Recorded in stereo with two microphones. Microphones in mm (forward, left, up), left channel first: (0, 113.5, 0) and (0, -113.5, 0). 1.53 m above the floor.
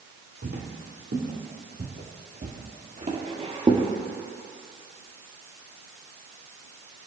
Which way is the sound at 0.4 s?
60° right (ahead or behind).